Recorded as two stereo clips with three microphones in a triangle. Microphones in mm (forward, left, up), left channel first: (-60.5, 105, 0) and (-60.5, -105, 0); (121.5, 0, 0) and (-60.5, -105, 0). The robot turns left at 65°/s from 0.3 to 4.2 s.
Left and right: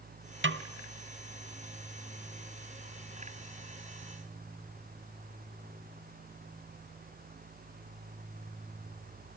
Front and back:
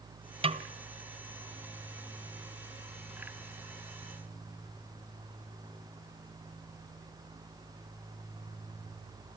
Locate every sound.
0.4 s a snare drum: 90° right, 1.0 m; by 0.7 s 105° right, 1.0 m